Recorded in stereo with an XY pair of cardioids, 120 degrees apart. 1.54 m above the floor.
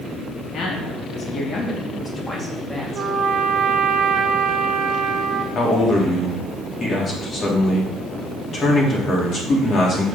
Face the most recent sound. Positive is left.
turn(degrees=40)